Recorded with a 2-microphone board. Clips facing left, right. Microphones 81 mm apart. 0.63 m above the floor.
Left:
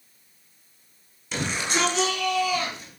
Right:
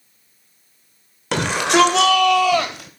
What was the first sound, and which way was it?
A shout, 70° right (ahead or behind).